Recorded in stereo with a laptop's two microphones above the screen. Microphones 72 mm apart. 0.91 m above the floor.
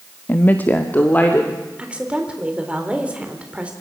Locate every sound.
0.3 s a woman speaking: 25° left (ahead or behind), 0.9 m
1.8 s a woman speaking: 15° right (ahead or behind), 3.5 m